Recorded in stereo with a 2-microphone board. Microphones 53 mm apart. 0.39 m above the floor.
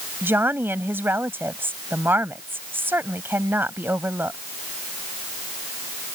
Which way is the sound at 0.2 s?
45° right (ahead or behind).